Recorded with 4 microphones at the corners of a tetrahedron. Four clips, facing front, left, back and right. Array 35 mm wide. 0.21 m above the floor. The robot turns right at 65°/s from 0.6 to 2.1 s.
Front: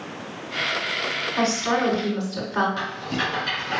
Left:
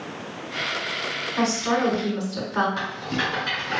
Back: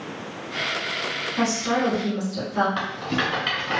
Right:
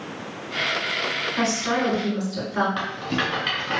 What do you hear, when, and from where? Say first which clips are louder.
1.4 s a woman speaking: left 2 dB, front 1 dB; 5° right, 2.0 m; by 2.7 s 45° left, 2.0 m
2.8 s a rattle: right 1 dB, back 1 dB; 145° right, 1.7 m